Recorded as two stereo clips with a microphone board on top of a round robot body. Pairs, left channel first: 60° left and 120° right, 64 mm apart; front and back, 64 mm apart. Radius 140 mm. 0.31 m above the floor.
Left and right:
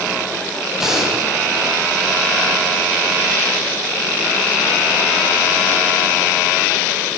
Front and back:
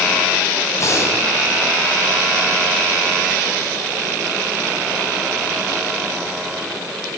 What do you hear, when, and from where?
0.8 s breathing: 40° right, 4 m